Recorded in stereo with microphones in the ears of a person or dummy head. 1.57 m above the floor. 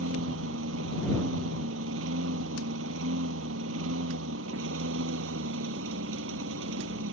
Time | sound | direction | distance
0.0 | a lawn mower | 85° right | ?